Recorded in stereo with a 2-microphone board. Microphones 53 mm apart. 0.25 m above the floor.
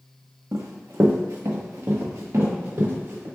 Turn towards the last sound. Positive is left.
turn(degrees=-55)  # may be behind; listen again after turning